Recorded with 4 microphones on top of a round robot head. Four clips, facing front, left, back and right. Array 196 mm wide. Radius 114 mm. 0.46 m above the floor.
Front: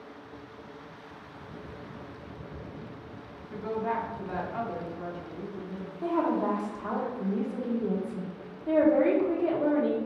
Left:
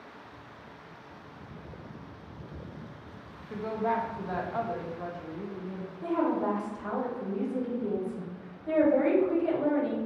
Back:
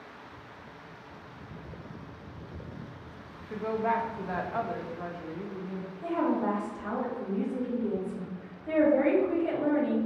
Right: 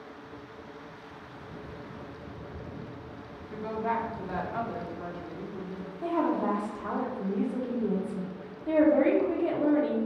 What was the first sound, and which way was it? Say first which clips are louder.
A woman speaking: left 1 dB, back 2 dB; 150° left.